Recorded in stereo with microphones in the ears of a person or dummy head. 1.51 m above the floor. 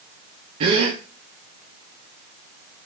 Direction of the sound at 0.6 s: 30° right (ahead or behind).